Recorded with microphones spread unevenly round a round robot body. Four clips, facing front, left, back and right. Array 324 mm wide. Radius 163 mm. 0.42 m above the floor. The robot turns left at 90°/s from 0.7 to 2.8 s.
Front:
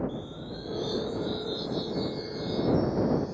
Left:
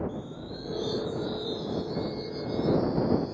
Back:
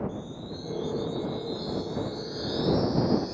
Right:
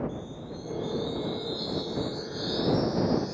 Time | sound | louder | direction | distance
0.1 | a chime | even, even | 60° left | ?